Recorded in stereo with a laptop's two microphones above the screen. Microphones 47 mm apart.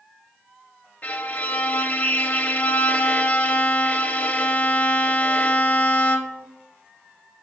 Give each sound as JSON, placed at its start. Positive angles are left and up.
{"t": 1.0, "sound": "a violin", "side_deg": 35, "distance_m": 0.9}